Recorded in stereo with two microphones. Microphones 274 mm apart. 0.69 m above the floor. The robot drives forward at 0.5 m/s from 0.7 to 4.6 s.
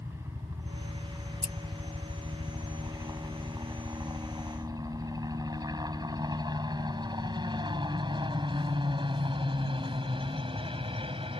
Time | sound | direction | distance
0.0 | a helicopter | 10° right (ahead or behind) | ?
1.4 | scissors | 80° right | ?